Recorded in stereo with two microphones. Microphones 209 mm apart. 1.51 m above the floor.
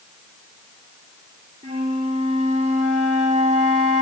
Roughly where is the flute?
Right.